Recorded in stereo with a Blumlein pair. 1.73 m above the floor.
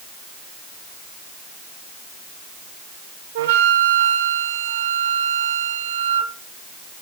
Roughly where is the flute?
Ahead right.